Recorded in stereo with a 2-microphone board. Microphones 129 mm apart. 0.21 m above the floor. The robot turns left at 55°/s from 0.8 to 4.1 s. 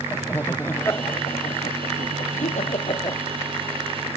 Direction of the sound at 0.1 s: 15° left (ahead or behind).